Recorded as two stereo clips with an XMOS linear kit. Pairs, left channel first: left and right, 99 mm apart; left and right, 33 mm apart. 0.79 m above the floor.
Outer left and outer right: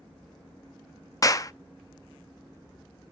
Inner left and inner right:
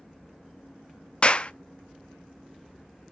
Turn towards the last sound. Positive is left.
turn(degrees=35)  # may be behind; listen again after turning